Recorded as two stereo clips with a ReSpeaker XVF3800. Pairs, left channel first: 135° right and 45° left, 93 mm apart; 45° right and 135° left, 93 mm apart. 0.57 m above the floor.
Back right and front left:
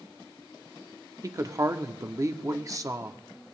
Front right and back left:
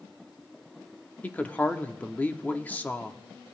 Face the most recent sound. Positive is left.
turn(degrees=15)